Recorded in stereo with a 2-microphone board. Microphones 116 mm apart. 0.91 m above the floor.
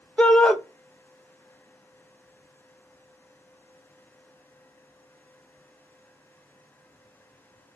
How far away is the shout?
About 0.6 m.